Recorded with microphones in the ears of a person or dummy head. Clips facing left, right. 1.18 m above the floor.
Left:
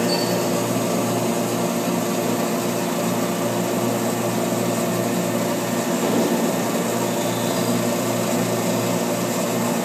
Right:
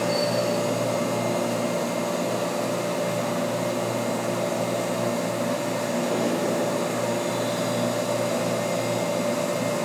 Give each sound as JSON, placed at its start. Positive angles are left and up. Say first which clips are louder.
{"t": 0.0, "sound": "a machine running", "louder": "left 3 dB", "side_deg": 85, "distance_m": 1.2}